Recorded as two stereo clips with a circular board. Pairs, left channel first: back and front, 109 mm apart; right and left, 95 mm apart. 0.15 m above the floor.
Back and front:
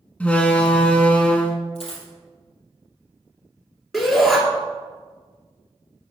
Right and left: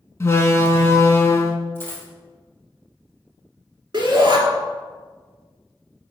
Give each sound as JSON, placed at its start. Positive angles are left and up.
{"t": 0.2, "sound": "a door slam", "azimuth_deg": -115, "distance_m": 0.8}
{"t": 1.8, "sound": "a dropped coin", "azimuth_deg": -155, "distance_m": 2.5}
{"t": 3.9, "sound": "a shout", "azimuth_deg": 95, "distance_m": 1.7}